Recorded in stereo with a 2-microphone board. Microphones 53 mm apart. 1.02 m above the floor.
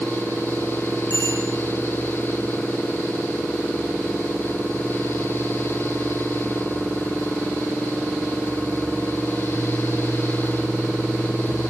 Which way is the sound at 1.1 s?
60° left (ahead or behind).